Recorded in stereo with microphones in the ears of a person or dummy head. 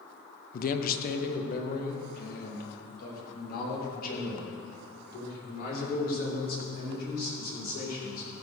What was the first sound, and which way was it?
A man speaking, 50° left (ahead or behind).